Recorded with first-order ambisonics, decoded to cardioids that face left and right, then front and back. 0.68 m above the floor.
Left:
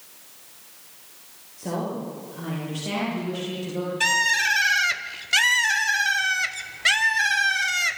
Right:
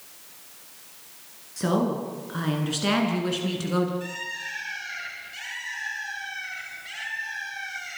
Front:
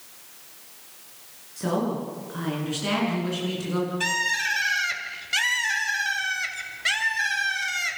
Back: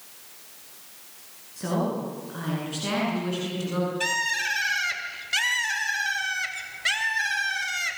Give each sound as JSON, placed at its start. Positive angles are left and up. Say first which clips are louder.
{"t": 1.6, "sound": "a woman speaking", "louder": "right 4 dB, front 1 dB", "azimuth_deg": -85, "distance_m": 9.5}
{"t": 4.0, "sound": "a bird", "louder": "left 13 dB, front 2 dB", "azimuth_deg": 90, "distance_m": 1.8}